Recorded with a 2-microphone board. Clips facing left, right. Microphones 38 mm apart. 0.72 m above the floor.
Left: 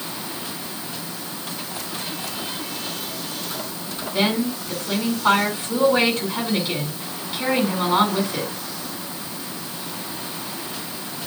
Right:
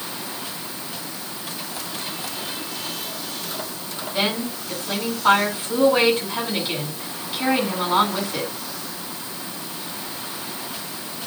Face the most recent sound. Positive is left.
turn(degrees=-5)  # may be behind; listen again after turning